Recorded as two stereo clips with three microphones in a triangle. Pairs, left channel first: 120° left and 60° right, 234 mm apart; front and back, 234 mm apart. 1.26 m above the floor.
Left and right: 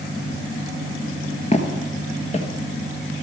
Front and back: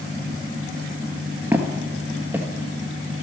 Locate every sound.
1.5 s footsteps: 110° left, 1.3 m